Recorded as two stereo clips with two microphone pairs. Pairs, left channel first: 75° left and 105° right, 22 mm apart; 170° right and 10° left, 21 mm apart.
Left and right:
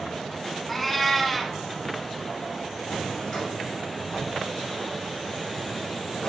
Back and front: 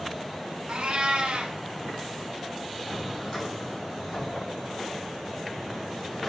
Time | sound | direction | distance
0.7 | a cat meowing | 15° right | 0.7 m
2.9 | a drawer | 115° left | 4.5 m